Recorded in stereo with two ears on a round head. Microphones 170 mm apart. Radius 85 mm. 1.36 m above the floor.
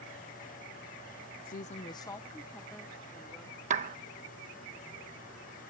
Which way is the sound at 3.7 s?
40° right (ahead or behind).